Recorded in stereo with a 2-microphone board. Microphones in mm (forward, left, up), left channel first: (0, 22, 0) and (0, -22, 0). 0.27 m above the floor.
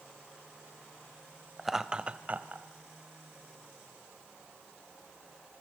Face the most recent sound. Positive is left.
turn(degrees=-40)  # may be behind; listen again after turning